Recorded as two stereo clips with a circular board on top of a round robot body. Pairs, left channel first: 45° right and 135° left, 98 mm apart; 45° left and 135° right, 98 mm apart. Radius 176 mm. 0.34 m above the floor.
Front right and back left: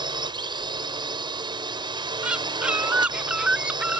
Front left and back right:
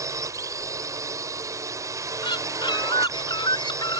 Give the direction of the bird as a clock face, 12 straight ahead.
10 o'clock.